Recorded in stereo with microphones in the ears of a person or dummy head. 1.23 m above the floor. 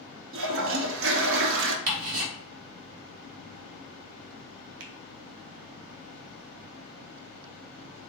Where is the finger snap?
70° right (ahead or behind), 0.9 m.